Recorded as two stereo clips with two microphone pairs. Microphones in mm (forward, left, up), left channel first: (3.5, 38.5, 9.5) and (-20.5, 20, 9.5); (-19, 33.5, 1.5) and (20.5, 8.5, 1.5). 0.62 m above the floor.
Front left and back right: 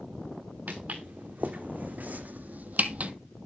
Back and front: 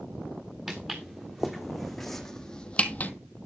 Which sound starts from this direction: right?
Footsteps, at 0.7 s.